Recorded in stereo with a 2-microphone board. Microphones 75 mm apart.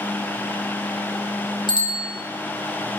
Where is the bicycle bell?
70° left (ahead or behind), 3 m.